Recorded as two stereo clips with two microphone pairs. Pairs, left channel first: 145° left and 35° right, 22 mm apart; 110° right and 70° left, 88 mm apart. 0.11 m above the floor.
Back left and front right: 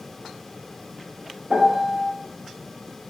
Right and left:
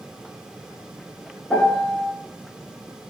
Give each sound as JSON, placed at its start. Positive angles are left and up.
{"t": 1.5, "sound": "a piano", "azimuth_deg": -40, "distance_m": 0.5}